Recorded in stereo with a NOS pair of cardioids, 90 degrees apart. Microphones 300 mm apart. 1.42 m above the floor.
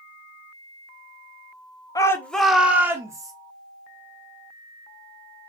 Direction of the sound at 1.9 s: 10° left.